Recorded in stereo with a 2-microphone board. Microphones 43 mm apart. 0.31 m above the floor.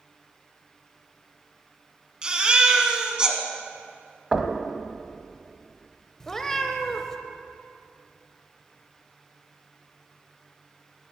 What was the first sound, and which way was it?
A baby crying, 20° right (ahead or behind).